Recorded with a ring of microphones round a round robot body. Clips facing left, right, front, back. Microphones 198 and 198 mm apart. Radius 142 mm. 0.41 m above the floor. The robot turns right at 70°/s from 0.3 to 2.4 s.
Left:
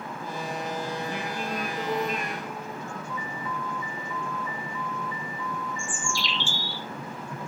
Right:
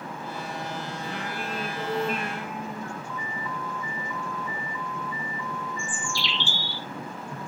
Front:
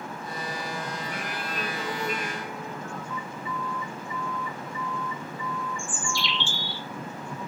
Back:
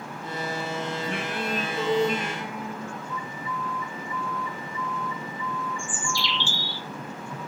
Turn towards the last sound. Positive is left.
turn(degrees=40)